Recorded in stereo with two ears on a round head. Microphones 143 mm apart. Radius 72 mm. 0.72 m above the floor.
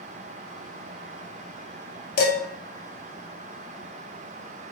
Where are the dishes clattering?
60° left (ahead or behind), 0.8 m.